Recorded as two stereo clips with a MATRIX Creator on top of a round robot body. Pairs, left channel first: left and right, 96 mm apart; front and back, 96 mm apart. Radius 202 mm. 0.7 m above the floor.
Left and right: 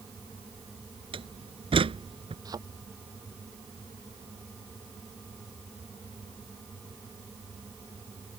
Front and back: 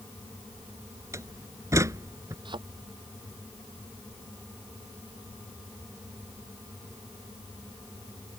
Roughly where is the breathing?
No breathing in this recording.